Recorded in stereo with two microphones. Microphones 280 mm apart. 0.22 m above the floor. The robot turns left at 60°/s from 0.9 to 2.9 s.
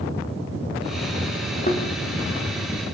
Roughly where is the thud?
Left.